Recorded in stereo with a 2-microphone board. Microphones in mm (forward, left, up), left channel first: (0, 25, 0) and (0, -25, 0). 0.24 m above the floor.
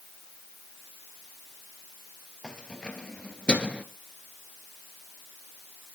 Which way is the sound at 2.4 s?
15° left (ahead or behind).